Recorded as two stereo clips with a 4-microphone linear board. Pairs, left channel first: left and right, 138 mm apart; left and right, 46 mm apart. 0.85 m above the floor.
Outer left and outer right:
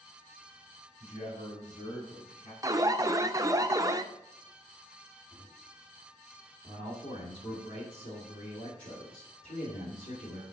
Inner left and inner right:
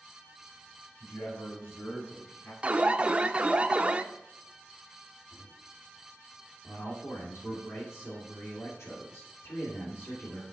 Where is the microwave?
70° left (ahead or behind), 3.5 m.